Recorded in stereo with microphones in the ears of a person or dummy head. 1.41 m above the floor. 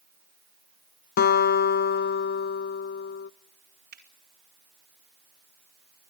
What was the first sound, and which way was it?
A guitar, 50° left (ahead or behind).